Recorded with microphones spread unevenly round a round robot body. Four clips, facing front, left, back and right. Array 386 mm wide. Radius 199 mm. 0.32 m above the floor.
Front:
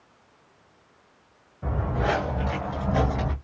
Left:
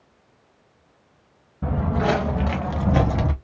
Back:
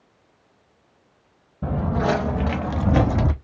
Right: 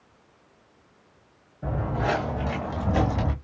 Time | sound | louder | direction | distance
1.6 | footsteps | left 4 dB, back 4 dB | 140° left | 1.7 m